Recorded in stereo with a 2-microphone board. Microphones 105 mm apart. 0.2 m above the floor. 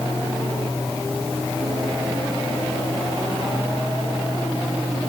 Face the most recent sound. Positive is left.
No sound to turn to.